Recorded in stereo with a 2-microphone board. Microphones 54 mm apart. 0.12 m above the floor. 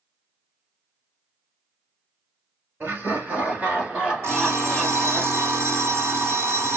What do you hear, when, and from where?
2.8 s laughter: 45° right (ahead or behind), 2 m; by 5.2 s 10° left (ahead or behind), 1.8 m
4.2 s an alarm clock: 55° right (ahead or behind), 2 m